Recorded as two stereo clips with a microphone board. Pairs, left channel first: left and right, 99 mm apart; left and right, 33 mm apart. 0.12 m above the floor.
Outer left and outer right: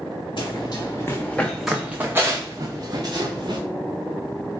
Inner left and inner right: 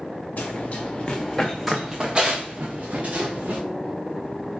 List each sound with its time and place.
0.4 s running footsteps: 55° left (ahead or behind), 0.8 m; by 3.6 s 50° right (ahead or behind), 1.3 m